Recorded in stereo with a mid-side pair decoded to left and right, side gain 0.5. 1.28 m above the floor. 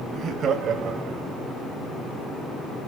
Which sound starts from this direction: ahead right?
Laughter, at 0.1 s.